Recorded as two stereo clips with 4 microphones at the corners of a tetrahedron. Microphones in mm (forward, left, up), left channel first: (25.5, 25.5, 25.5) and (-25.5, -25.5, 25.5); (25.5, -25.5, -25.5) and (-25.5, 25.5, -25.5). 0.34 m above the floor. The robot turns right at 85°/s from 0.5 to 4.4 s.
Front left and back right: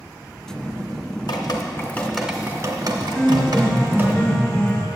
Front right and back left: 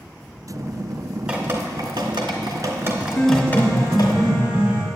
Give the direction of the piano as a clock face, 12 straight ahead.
12 o'clock.